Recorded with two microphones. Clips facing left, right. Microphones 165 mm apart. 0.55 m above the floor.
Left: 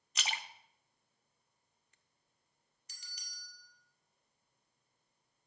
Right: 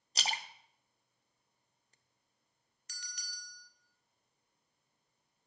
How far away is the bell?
About 1.5 m.